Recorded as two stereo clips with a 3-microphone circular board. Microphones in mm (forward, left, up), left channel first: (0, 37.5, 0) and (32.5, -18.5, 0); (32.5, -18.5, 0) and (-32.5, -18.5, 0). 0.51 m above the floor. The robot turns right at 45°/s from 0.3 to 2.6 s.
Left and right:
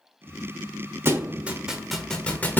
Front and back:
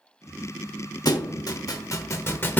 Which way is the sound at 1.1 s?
10° right.